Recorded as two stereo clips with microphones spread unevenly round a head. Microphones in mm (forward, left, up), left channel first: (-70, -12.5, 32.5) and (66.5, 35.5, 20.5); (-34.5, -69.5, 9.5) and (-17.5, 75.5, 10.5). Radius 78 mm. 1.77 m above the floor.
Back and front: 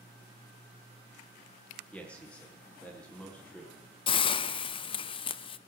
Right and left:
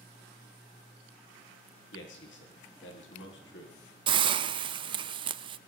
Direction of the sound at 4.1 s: 140° left.